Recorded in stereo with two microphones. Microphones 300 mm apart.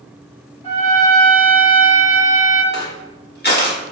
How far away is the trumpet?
About 1.5 m.